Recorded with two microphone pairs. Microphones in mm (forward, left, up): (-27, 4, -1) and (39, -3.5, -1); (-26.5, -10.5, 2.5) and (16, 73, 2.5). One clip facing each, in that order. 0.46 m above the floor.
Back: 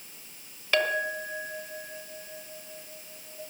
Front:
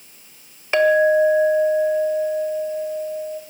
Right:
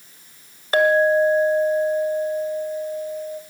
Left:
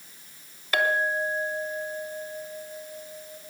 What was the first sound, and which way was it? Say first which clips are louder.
A clink: front 13 dB, right 10 dB; 65° right.